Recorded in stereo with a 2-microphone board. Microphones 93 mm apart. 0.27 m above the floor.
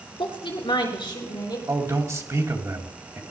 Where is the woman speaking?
70° left (ahead or behind), 4 m; by 1.6 s 50° left (ahead or behind), 4.5 m.